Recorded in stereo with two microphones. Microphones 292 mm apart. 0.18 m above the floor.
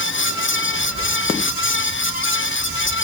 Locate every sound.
Only background noise.